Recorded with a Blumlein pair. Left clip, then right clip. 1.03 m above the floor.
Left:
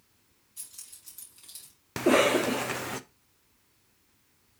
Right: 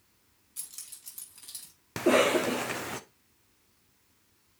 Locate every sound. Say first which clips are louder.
0.6 s keys jangling: right 2 dB; 30° right, 5.5 m; by 1.7 s 40° right, 4.5 m
2.0 s a cough: left 1 dB; 5° left, 0.5 m